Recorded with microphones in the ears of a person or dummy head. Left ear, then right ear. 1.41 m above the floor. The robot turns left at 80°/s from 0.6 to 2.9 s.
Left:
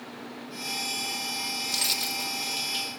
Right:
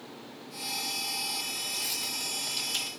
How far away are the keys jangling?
About 1.0 m.